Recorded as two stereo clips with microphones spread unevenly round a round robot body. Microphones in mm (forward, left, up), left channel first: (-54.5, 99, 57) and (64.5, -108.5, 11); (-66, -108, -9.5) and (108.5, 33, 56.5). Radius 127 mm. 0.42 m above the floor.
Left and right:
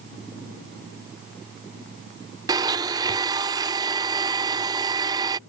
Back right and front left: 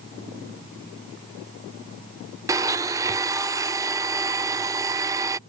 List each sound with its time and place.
2.5 s a blender: 55° right